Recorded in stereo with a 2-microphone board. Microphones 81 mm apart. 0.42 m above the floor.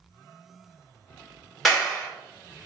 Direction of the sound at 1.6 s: Centre (ahead or behind).